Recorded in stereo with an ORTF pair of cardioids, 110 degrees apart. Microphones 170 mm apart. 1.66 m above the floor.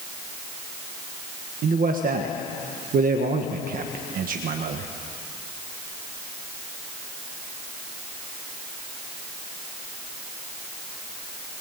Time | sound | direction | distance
1.6 | a man speaking | 60° right | 1.6 m